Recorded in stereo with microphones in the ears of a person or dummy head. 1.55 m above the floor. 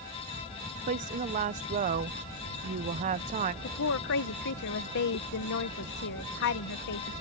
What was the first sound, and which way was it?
A woman speaking, 35° right (ahead or behind).